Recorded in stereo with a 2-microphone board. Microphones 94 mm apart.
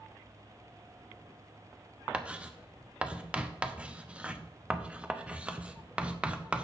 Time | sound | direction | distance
2.1 | writing | 10° right (ahead or behind) | 0.6 m